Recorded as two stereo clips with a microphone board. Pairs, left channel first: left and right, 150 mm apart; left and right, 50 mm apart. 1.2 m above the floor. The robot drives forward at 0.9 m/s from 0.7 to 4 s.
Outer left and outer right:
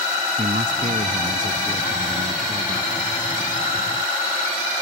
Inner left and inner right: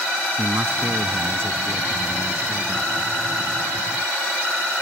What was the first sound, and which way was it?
A man speaking, 60° right (ahead or behind).